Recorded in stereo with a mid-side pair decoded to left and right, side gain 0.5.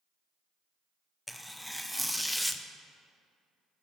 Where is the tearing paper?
Straight ahead, 0.5 m.